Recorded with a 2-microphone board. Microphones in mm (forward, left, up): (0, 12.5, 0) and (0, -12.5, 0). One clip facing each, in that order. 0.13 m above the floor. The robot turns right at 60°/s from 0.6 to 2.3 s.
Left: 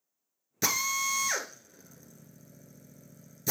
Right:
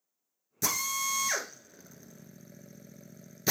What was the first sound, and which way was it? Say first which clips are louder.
A drill: left 2 dB; 35° left (ahead or behind).